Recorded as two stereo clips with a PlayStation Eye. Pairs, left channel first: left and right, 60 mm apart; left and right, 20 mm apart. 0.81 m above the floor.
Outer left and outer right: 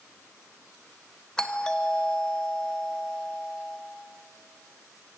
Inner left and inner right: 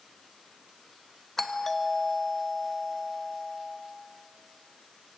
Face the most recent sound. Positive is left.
turn(degrees=10)  # may be behind; listen again after turning